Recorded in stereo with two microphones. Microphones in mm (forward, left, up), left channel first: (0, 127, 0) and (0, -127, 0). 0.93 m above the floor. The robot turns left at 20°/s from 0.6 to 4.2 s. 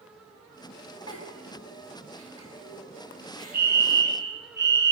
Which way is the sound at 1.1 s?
80° left.